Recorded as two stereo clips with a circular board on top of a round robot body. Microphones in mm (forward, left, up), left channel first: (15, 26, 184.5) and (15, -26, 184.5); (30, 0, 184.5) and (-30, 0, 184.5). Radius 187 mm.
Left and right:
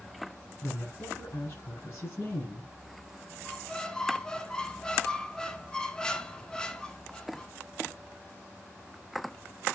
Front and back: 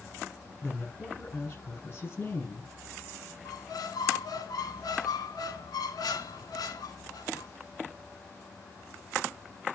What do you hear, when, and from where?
0.6 s a woman speaking: 55° left, 6 m
3.5 s a squeak: 15° left, 0.5 m